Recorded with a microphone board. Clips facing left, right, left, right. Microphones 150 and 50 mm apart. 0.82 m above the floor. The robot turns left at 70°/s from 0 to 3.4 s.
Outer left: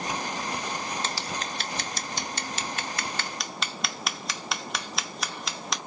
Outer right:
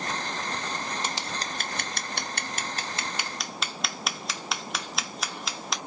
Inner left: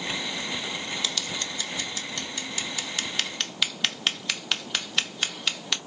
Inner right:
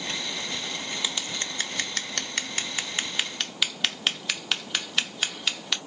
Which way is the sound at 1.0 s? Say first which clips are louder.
Outer left 1 dB, even; 15° right (ahead or behind).